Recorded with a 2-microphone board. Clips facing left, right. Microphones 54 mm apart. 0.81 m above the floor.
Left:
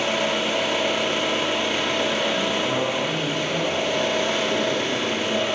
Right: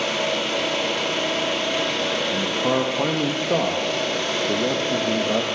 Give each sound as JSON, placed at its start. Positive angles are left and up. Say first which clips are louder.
{"t": 0.0, "sound": "an engine running", "louder": "left 1 dB", "side_deg": 20, "distance_m": 1.2}
{"t": 2.3, "sound": "a man speaking", "louder": "right 1 dB", "side_deg": -50, "distance_m": 0.5}